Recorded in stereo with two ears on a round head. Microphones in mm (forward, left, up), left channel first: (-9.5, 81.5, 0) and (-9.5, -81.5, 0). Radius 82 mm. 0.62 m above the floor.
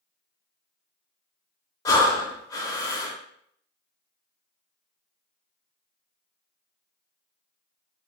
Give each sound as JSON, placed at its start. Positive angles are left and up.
{"t": 1.9, "sound": "breathing", "side_deg": 20, "distance_m": 0.5}